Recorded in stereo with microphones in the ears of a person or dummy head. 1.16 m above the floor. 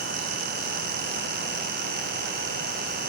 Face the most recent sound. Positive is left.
No sound to turn to.